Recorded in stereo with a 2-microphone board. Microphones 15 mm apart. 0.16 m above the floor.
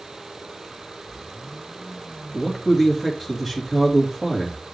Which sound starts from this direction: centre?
A man speaking, at 2.3 s.